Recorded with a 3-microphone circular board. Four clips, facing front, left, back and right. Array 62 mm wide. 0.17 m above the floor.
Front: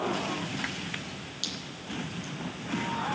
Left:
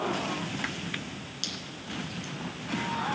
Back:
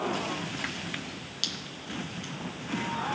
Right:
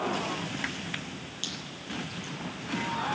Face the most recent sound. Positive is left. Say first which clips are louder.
# even, back 1 dB
turn(degrees=175)